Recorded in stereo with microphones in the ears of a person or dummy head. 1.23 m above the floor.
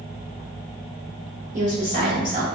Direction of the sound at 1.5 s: 40° right (ahead or behind).